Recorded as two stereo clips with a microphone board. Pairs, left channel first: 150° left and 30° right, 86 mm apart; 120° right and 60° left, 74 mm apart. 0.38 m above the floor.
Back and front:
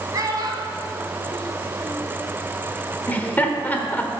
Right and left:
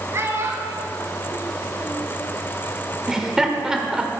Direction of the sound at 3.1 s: 130° left.